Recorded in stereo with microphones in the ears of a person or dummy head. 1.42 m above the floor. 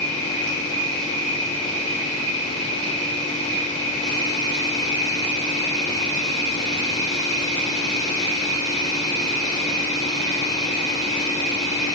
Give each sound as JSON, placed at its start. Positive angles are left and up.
{"t": 0.0, "sound": "an insect", "side_deg": -20, "distance_m": 1.9}